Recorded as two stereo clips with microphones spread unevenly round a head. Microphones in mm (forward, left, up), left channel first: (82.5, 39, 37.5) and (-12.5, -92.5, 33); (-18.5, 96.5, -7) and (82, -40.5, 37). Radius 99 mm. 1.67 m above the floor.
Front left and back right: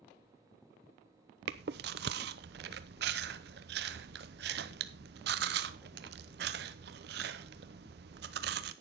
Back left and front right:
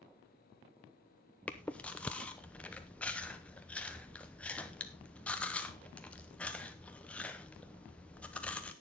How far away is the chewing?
About 0.7 m.